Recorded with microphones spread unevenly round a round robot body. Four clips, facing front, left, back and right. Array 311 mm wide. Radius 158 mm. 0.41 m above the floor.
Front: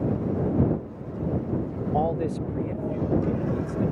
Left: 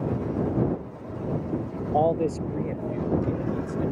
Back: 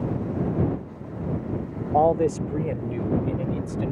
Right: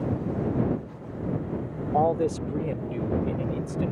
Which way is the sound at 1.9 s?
170° left.